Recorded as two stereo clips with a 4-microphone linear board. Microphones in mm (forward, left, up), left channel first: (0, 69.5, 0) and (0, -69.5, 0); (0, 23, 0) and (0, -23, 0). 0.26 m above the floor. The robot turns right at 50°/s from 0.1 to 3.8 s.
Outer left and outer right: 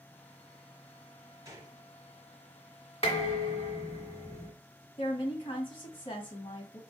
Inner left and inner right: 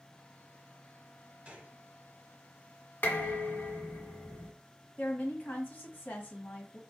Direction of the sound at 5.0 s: 40° left (ahead or behind).